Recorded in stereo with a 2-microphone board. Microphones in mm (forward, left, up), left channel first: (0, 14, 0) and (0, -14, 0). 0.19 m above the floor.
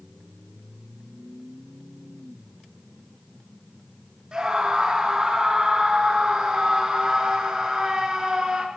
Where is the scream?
30° right (ahead or behind), 3 m.